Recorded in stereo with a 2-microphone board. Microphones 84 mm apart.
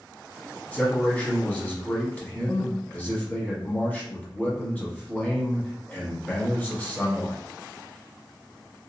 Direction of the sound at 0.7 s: 20° left (ahead or behind).